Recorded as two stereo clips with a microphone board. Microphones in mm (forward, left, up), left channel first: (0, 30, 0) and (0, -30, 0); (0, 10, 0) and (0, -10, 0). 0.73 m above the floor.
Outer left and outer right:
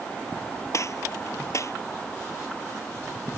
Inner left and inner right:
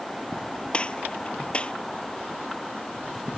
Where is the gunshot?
60° left (ahead or behind).